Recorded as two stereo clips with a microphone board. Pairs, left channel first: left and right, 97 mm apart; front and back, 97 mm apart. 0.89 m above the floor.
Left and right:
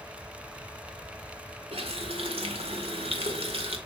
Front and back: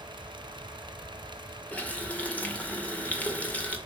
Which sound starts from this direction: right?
A running tap, at 1.7 s.